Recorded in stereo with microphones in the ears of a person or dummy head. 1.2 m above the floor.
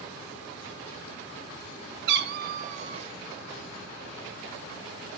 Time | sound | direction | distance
2.1 | a cat meowing | 60° right (ahead or behind) | 0.9 m